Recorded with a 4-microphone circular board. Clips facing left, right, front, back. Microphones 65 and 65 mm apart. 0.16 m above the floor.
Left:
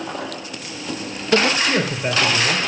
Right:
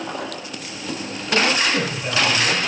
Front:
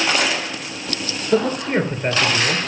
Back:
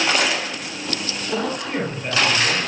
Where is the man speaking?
40° left, 3.5 m.